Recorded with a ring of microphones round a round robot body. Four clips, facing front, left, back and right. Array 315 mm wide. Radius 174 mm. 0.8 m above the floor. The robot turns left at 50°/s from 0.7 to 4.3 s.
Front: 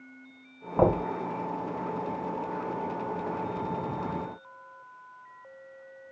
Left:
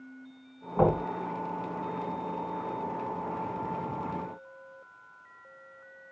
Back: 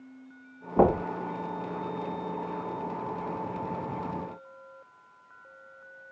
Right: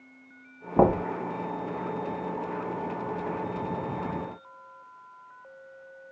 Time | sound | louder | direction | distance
0.8 | knocking | right 4 dB, back 1 dB | 100° right | 6.5 m